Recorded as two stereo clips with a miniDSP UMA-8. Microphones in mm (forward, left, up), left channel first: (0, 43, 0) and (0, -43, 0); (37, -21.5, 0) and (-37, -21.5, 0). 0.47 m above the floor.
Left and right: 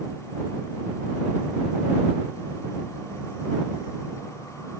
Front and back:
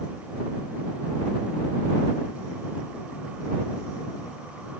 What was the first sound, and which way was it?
Only background noise.